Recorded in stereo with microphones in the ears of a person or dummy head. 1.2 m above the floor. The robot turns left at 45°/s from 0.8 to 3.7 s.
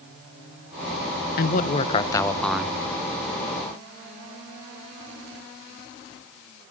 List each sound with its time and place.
1.4 s a man speaking: 50° left, 0.8 m; by 2.8 s 10° right, 0.8 m